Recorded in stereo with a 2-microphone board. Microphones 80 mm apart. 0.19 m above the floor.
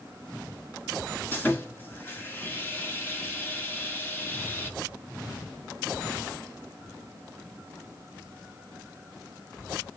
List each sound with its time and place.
1.3 s sawing: 25° left (ahead or behind), 2.0 m